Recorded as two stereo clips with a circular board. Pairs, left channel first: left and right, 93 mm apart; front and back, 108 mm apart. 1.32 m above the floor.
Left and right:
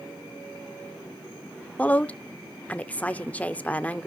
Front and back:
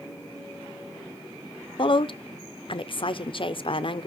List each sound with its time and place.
1.8 s a woman speaking: 15° left, 0.7 m